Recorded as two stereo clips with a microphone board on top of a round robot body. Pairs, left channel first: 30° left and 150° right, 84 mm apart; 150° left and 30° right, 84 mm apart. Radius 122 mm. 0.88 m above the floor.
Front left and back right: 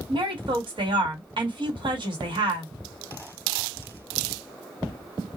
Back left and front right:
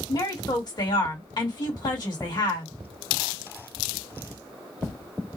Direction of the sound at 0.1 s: 175° right.